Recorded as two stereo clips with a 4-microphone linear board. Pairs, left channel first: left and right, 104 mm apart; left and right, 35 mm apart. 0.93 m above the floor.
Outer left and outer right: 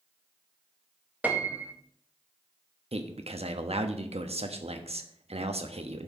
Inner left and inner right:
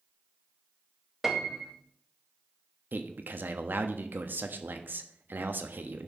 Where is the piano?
15° right (ahead or behind), 1.3 m.